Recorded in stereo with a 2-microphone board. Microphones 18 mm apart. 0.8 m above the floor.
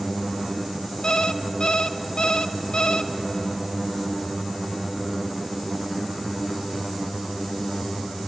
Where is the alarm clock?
60° left (ahead or behind), 0.7 m.